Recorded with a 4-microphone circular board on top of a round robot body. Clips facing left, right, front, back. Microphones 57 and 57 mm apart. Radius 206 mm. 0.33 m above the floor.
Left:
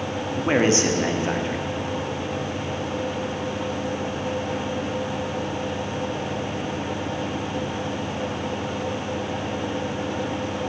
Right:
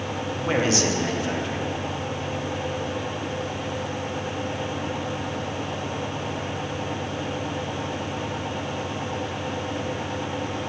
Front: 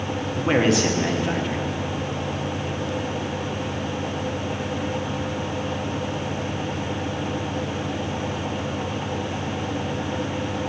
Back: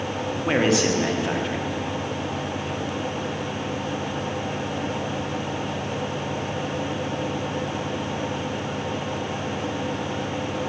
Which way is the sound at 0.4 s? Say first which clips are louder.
Left 4 dB, front 1 dB; 95° left.